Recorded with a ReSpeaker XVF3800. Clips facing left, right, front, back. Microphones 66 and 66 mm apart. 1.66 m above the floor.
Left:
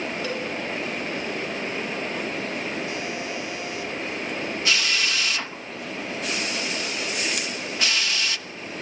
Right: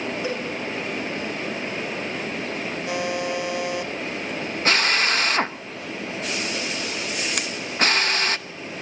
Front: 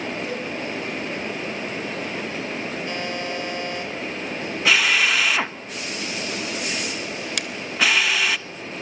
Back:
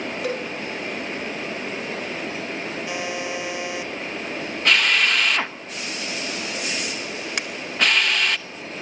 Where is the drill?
85° right, 1.1 m.